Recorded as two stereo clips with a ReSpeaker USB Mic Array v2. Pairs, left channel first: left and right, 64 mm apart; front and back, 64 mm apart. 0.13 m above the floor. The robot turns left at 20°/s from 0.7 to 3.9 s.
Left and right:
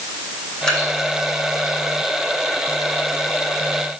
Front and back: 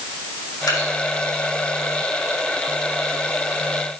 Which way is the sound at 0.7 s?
15° left.